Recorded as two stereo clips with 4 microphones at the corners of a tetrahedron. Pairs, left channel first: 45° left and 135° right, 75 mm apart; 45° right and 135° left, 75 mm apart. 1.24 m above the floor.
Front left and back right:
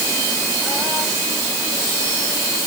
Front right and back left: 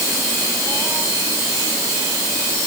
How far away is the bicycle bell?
I don't hear a bicycle bell.